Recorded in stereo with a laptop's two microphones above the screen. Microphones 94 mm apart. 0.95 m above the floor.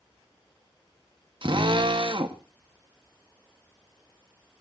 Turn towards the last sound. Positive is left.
turn(degrees=-60)  # may be behind; listen again after turning